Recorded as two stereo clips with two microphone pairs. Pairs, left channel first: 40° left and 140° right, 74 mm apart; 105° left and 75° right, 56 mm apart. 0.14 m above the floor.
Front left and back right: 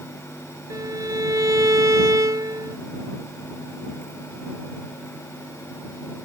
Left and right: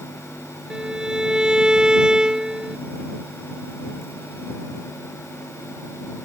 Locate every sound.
0.7 s a violin: 145° right